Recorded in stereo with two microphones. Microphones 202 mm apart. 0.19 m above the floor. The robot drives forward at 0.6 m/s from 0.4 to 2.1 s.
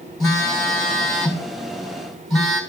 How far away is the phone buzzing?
About 3 m.